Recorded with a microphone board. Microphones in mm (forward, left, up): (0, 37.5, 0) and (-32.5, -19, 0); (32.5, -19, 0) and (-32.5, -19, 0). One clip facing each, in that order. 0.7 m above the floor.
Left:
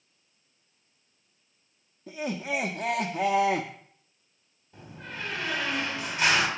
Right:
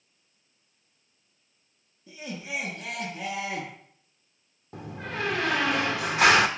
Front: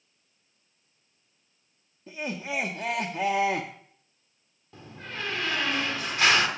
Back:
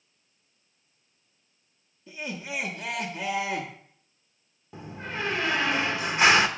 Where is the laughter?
45° left, 0.8 m.